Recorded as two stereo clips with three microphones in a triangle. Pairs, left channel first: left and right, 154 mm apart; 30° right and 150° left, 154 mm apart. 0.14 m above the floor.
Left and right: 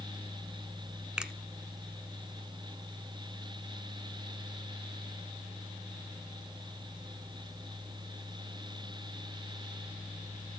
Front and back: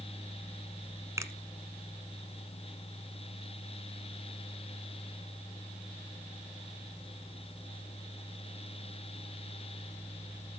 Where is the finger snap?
165° right, 1.1 m.